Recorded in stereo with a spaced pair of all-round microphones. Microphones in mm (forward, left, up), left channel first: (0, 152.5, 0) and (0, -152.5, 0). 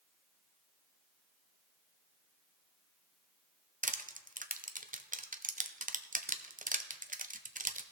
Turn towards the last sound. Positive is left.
turn(degrees=-25)  # may be behind; listen again after turning